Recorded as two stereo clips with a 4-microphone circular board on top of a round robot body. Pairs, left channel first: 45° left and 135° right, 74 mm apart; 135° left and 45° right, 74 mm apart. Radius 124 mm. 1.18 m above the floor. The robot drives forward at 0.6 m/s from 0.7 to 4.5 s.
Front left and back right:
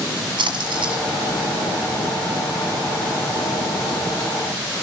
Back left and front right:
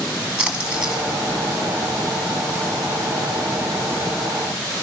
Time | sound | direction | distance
0.4 | a splash | 120° right | 1.3 m